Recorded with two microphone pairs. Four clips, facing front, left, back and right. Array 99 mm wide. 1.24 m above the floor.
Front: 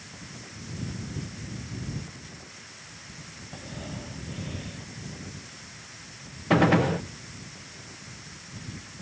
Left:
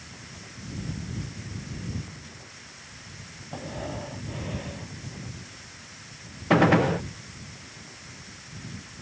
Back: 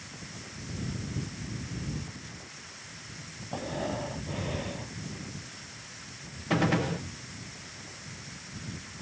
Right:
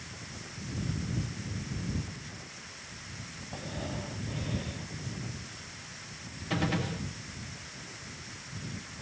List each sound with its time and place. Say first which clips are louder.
3.5 s breathing: left 4 dB, back 7 dB; 155° left
6.5 s a gunshot: left 13 dB, front 6 dB; 60° left